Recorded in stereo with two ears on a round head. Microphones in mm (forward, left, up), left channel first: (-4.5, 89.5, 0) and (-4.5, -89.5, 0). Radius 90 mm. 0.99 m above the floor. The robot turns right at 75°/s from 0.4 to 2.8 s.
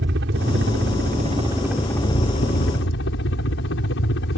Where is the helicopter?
105° right; by 4.4 s 75° left.